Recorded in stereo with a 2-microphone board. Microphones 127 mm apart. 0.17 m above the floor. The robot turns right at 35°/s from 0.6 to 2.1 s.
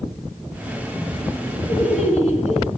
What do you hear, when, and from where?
1.7 s laughter: 70° left (ahead or behind), 4.5 m; by 2.7 s 55° left (ahead or behind), 4.5 m